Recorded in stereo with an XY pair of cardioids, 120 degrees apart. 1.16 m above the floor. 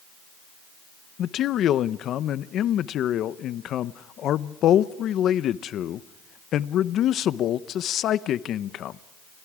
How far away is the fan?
I don't hear a fan.